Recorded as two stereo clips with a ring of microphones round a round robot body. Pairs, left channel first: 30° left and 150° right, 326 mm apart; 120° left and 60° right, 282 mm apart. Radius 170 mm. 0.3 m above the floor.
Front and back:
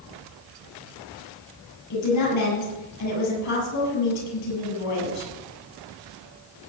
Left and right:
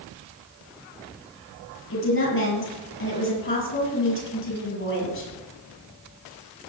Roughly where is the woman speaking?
Left.